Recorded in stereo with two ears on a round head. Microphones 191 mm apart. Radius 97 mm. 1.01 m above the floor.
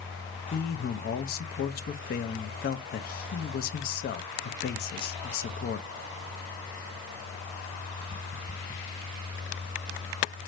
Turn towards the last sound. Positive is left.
turn(degrees=50)  # may be behind; listen again after turning